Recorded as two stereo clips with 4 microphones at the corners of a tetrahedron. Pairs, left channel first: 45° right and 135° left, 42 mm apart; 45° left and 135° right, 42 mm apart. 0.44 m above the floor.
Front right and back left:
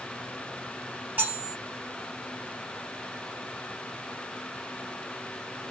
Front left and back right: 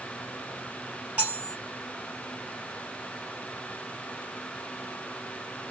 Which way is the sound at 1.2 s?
170° left.